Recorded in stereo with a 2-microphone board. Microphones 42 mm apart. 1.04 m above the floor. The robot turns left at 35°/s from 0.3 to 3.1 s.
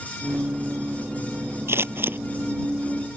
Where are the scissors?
70° right (ahead or behind); by 2.2 s 55° right (ahead or behind).